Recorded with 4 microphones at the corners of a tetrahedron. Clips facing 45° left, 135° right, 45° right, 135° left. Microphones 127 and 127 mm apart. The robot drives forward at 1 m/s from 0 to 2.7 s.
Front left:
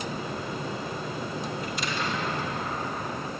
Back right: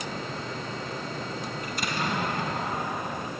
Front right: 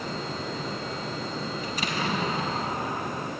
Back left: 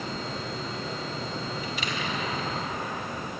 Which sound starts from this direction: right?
An explosion, at 1.6 s.